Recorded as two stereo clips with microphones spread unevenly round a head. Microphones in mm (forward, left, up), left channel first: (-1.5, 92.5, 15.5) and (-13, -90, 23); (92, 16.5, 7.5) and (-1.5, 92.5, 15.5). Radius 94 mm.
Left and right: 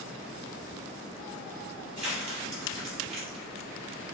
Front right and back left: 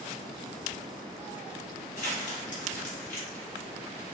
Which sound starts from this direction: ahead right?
Crumpling, at 2.0 s.